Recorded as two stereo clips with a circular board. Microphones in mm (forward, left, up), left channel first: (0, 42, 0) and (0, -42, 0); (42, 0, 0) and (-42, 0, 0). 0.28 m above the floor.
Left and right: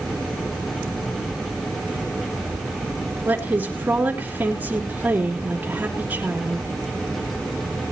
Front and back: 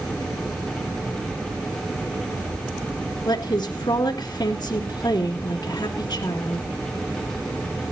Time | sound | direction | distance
3.2 | a woman speaking | 20° right | 3.5 m